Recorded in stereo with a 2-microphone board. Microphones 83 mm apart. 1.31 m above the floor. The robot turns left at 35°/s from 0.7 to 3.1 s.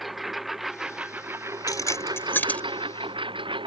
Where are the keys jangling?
50° left (ahead or behind); by 2.6 s 15° left (ahead or behind).